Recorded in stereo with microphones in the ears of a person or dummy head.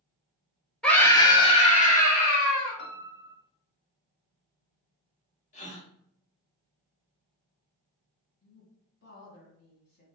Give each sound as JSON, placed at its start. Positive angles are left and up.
{"t": 0.8, "sound": "a scream", "side_deg": 5, "distance_m": 1.0}
{"t": 2.8, "sound": "a piano", "side_deg": 60, "distance_m": 0.8}
{"t": 5.5, "sound": "a gasp", "side_deg": 40, "distance_m": 1.3}
{"t": 8.4, "sound": "a woman speaking", "side_deg": 50, "distance_m": 2.0}